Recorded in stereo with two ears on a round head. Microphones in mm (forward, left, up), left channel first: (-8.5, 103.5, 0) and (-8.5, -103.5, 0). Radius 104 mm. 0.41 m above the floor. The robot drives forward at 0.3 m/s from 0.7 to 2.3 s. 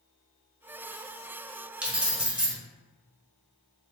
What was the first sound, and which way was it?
Keys jangling, 5° right (ahead or behind).